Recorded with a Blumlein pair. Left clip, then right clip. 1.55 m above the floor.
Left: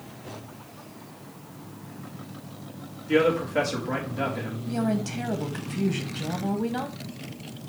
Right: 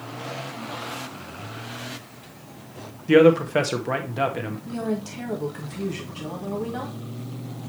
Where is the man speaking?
35° right, 1.6 m.